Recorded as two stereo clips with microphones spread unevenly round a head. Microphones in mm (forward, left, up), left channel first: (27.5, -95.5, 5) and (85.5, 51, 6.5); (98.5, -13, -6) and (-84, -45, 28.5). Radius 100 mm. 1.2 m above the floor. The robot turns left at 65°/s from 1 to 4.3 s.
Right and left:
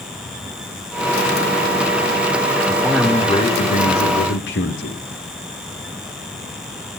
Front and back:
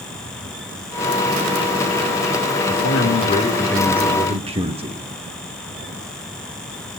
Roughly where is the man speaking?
Ahead.